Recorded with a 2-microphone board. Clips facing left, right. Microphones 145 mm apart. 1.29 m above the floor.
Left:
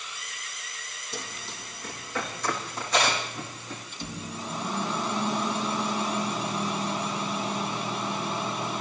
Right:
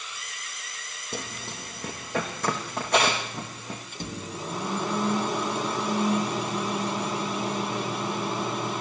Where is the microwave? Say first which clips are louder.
Right 1 dB; 50° right (ahead or behind), 4 m.